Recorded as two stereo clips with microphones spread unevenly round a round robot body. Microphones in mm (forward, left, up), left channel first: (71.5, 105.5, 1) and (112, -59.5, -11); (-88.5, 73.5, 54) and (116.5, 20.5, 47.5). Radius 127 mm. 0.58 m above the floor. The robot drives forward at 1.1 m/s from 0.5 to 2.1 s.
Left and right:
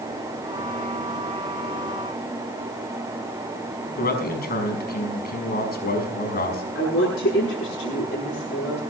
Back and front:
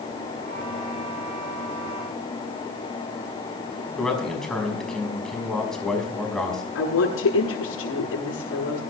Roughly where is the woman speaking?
Behind left.